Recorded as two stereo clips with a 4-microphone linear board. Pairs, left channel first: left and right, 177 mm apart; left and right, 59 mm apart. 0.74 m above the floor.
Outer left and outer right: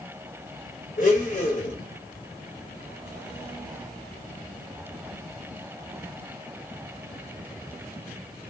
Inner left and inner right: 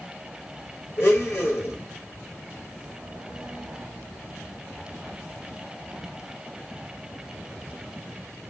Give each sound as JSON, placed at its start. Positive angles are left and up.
{"t": 1.0, "sound": "a blender", "side_deg": 55, "distance_m": 1.0}